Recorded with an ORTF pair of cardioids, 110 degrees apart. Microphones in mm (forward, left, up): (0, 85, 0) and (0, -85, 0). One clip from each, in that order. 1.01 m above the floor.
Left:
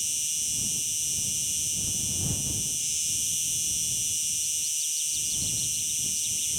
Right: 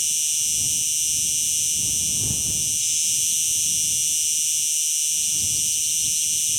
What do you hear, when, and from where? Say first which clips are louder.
0.0 s an insect: right 6 dB; 30° right